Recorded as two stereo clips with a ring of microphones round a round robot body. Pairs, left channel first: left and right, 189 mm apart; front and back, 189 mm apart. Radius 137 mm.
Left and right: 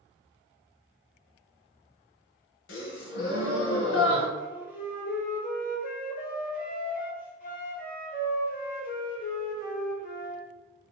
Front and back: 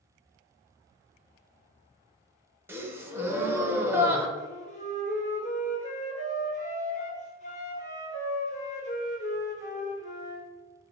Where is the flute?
50° left, 1.8 m.